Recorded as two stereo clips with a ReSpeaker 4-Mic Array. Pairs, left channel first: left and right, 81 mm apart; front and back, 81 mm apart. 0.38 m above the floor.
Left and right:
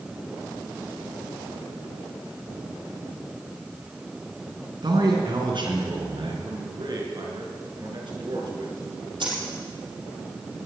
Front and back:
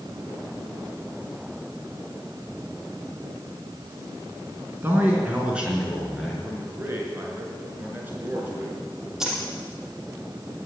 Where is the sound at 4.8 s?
115° right, 4 m; by 6.3 s 95° right, 5 m.